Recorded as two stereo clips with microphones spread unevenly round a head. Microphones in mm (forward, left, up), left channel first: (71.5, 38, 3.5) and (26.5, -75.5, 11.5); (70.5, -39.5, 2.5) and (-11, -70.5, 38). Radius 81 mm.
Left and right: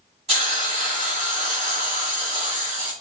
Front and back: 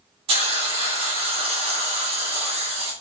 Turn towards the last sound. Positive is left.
turn(degrees=-165)